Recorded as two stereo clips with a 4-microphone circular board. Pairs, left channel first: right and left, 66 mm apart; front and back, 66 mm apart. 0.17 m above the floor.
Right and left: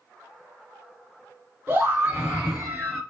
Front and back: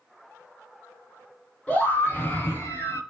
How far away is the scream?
About 1.4 m.